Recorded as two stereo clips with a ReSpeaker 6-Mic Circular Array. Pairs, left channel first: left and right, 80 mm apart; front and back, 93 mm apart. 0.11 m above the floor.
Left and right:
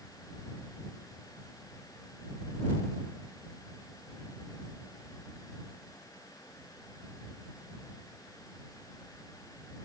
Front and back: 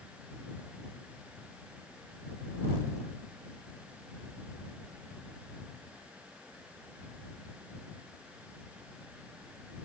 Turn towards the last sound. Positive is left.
No sound to turn to.